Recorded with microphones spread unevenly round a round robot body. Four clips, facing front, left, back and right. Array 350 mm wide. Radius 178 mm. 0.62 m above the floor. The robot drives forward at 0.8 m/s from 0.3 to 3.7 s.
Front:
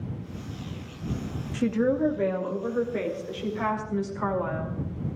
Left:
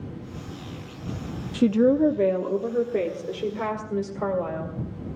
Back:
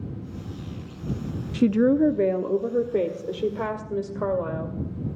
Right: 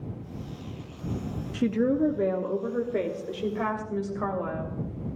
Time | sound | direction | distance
1.5 | a woman speaking | 140° left | 0.5 m